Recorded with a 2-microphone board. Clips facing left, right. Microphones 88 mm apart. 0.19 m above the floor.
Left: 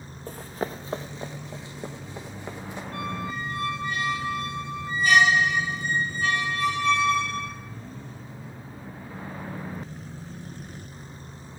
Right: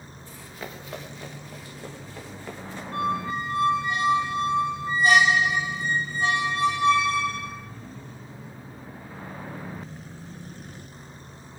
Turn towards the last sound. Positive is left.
turn(degrees=-35)  # may be behind; listen again after turning